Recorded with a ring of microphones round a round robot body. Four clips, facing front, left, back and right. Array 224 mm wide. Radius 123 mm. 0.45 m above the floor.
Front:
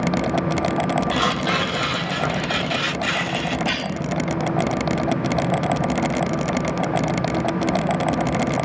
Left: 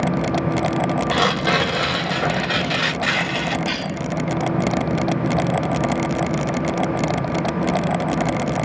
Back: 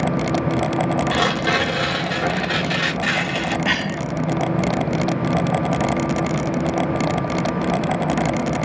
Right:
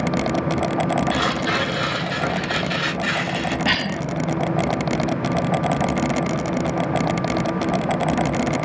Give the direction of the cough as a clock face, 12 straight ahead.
5 o'clock.